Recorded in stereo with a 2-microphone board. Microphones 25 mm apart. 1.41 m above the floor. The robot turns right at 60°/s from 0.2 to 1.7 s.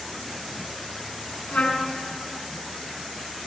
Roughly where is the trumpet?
Left.